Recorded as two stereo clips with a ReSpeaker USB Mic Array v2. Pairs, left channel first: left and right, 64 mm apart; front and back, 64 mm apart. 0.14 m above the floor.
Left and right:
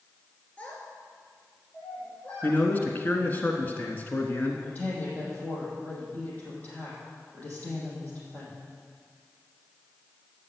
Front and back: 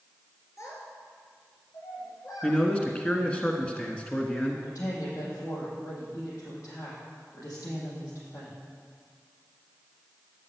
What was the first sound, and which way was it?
A child speaking, 25° left.